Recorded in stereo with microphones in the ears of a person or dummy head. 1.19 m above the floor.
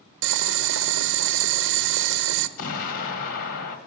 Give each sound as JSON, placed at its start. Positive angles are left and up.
{"t": 0.2, "sound": "boiling", "side_deg": -65, "distance_m": 1.0}
{"t": 2.6, "sound": "an explosion", "side_deg": 50, "distance_m": 2.0}